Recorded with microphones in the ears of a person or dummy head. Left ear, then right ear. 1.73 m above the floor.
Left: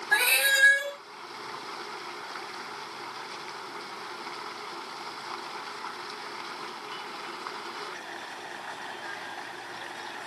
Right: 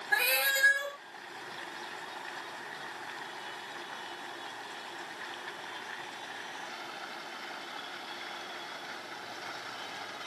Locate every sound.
0.1 s a cat meowing: 45° left (ahead or behind), 1.8 m